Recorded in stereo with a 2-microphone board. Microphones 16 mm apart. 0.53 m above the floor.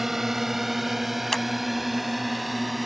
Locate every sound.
0.0 s a drone: 20° right (ahead or behind); by 2.9 s 5° right (ahead or behind)
1.3 s scissors: 25° left (ahead or behind)